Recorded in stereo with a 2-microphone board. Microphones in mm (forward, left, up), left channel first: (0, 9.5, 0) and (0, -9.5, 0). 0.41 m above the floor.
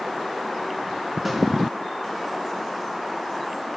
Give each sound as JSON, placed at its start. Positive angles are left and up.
{"t": 1.2, "sound": "a snare drum", "side_deg": 5, "distance_m": 2.5}